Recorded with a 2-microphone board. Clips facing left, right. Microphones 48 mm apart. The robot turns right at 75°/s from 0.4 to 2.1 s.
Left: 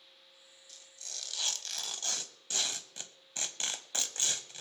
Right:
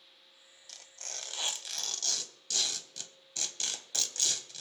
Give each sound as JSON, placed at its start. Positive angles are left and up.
{"t": 0.7, "sound": "tearing paper", "azimuth_deg": -80, "distance_m": 0.7}